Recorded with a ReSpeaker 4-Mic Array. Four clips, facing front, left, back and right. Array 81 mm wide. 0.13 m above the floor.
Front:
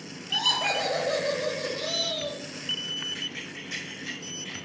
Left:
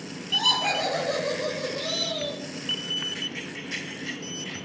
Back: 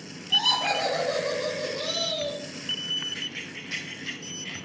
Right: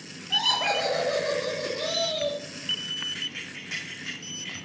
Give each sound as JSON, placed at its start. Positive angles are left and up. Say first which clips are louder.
{"t": 0.3, "sound": "laughter", "louder": "even, back 2 dB", "azimuth_deg": -80, "distance_m": 2.5}
{"t": 3.1, "sound": "keys jangling", "louder": "left 4 dB, even", "azimuth_deg": -115, "distance_m": 4.5}